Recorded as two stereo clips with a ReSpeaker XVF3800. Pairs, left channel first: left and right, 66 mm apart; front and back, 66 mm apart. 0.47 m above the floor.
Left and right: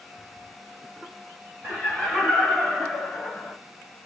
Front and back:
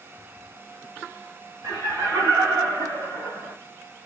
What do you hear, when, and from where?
1.6 s laughter: 160° right, 2 m; by 3.5 s 175° right, 3 m